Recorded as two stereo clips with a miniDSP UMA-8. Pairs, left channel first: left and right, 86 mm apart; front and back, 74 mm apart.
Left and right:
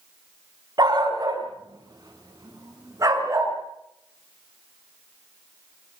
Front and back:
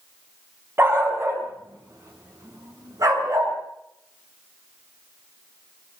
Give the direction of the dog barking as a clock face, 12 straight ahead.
4 o'clock.